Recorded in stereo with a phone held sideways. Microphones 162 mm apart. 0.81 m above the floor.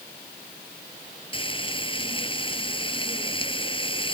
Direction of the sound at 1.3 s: 30° left (ahead or behind).